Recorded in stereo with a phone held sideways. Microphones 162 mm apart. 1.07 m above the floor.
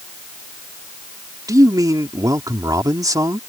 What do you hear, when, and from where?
1.5 s a man speaking: 25° right (ahead or behind)